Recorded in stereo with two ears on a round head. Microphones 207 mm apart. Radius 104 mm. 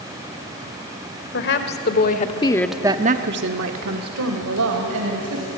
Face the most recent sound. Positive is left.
turn(degrees=-75)  # may be behind; listen again after turning